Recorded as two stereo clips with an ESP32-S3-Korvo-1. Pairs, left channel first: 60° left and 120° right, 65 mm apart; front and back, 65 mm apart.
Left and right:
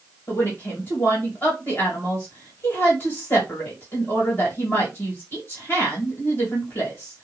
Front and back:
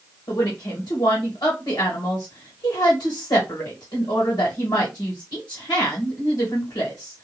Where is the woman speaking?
5° left, 2 m.